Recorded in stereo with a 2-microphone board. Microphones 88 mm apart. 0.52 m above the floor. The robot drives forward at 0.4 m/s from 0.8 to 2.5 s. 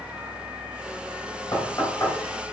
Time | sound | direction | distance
1.5 | knocking | 40° left (ahead or behind) | 2.5 m